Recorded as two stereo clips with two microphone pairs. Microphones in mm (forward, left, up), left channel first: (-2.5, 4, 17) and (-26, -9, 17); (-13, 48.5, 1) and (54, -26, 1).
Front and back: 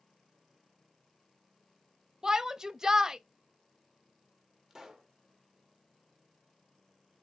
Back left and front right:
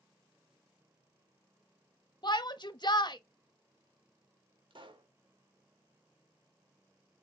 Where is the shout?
155° left, 1.0 m.